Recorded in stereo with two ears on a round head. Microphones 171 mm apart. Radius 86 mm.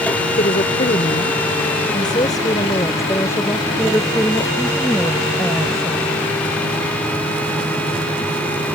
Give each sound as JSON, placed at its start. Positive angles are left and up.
{"t": 0.4, "sound": "a woman speaking", "side_deg": 35}